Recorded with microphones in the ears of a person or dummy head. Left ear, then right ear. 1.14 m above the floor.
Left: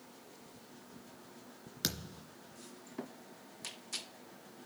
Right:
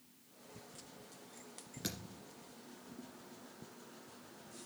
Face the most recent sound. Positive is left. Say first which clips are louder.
# left 7 dB
turn(degrees=40)  # may be behind; listen again after turning